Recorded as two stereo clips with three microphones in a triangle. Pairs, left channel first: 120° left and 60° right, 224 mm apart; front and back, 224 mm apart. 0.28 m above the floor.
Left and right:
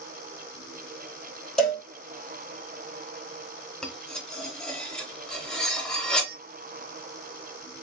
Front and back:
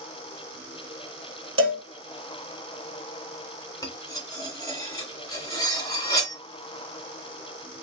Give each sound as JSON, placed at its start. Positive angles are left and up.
{"t": 1.6, "sound": "a cowbell", "azimuth_deg": -155, "distance_m": 1.3}
{"t": 3.8, "sound": "cutlery clinking", "azimuth_deg": 40, "distance_m": 0.6}